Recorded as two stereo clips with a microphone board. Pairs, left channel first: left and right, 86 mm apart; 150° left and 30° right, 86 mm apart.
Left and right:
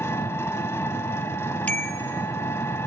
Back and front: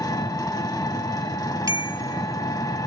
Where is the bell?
20° left, 0.8 m.